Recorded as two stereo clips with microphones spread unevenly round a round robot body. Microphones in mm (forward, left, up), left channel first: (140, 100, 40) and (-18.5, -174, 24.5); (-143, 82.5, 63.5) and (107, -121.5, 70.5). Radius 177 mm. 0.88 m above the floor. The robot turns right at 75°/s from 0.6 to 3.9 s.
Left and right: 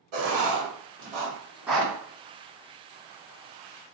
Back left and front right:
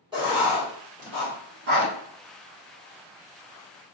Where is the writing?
115° right, 2 m; by 1.9 s 15° right, 2 m.